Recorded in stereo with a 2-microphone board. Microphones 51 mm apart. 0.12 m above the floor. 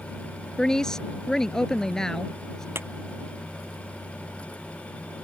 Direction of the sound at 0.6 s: 10° left (ahead or behind).